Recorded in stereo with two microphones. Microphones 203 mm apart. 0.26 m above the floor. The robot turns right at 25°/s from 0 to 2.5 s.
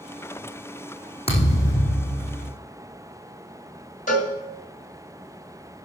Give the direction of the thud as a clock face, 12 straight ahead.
11 o'clock.